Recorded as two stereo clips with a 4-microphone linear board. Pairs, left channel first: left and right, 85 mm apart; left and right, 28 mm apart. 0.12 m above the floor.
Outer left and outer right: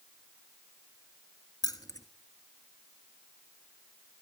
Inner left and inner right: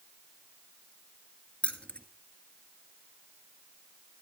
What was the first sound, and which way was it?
Keys jangling, 45° left (ahead or behind).